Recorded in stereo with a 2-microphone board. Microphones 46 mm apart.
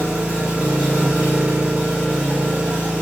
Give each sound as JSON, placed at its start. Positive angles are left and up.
{"t": 0.0, "sound": "an engine running", "side_deg": -25, "distance_m": 1.1}